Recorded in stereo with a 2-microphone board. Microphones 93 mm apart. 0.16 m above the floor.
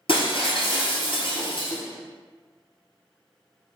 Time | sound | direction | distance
0.1 | breaking glass | 65° left (ahead or behind) | 1.3 m